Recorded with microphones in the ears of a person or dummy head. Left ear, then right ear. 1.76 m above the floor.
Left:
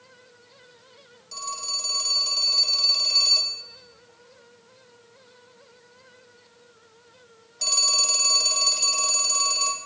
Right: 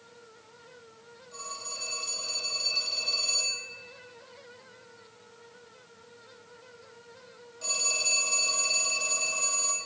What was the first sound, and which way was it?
A phone ringing, 65° left (ahead or behind).